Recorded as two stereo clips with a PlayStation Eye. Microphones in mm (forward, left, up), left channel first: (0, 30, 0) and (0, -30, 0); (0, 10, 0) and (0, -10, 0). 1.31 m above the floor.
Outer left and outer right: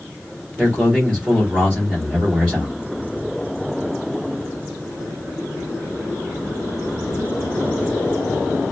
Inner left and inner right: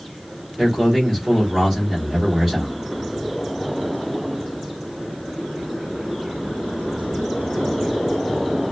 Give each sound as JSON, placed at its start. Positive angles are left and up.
{"t": 0.6, "sound": "a man speaking", "side_deg": -15, "distance_m": 2.0}